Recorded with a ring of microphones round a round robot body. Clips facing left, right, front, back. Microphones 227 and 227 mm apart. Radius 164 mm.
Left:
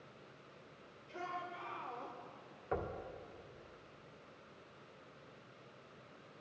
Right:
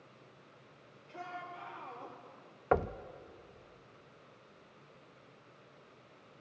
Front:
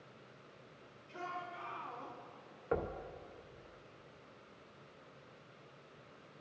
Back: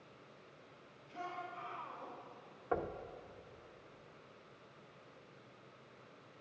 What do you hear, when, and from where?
1.1 s a shout: 5° left, 3 m; by 2.2 s 5° right, 2.5 m
2.7 s knocking: 75° right, 0.5 m